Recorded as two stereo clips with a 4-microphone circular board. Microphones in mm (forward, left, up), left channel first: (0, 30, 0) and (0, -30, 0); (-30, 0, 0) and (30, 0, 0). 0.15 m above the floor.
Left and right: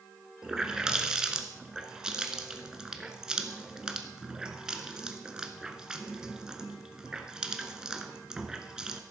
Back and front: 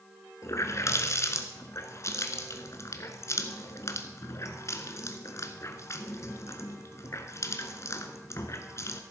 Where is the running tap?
165° right, 1.2 m.